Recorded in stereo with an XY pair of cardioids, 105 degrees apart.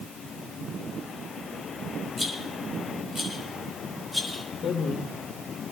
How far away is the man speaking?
About 5 m.